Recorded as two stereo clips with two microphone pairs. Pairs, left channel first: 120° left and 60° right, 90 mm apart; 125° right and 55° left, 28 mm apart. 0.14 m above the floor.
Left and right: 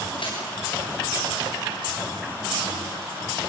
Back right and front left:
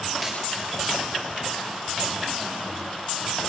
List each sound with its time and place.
0.2 s crushing: 145° left, 7.5 m